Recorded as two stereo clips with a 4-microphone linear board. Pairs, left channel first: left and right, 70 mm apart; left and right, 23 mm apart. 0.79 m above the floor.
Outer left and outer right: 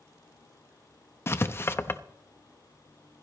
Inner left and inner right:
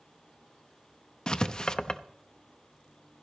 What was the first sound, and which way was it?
Writing, 35° left (ahead or behind).